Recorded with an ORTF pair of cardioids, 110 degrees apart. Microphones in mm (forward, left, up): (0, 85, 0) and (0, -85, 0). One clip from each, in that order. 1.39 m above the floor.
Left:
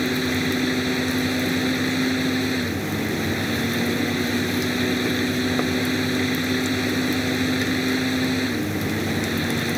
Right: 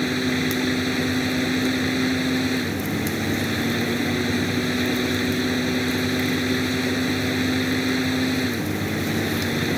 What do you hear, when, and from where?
0.0 s a fan: straight ahead